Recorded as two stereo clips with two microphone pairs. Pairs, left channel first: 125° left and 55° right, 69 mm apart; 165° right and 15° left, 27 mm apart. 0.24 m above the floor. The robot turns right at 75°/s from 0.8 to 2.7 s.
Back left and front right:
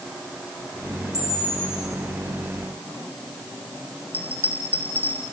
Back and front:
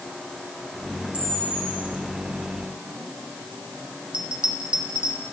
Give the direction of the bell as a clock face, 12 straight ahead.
10 o'clock.